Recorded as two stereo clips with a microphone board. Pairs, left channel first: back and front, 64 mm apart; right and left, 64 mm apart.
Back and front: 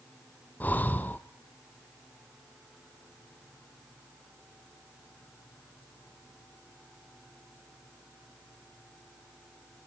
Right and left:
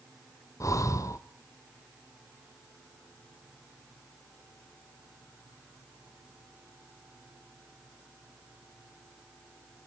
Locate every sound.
0.6 s breathing: 120° right, 0.8 m